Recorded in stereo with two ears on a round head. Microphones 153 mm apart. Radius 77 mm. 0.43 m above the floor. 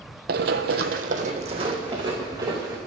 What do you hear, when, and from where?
0.3 s running footsteps: 65° right (ahead or behind), 1.0 m; by 2.8 s 20° right (ahead or behind), 3 m